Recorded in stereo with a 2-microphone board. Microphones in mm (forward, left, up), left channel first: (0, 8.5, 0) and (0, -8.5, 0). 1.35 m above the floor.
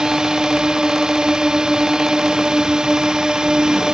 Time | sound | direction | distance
0.0 | a drone | 65° right (ahead or behind) | ?